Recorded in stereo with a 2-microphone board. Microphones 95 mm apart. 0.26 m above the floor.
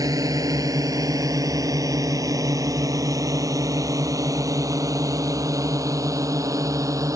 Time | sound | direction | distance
0.0 | a drone | 40° right (ahead or behind) | ?